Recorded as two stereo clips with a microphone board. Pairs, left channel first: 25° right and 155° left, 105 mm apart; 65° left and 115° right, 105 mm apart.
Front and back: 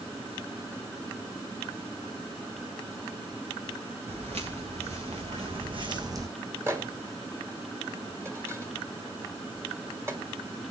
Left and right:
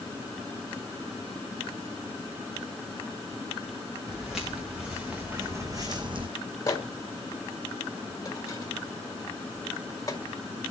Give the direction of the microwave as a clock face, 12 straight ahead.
8 o'clock.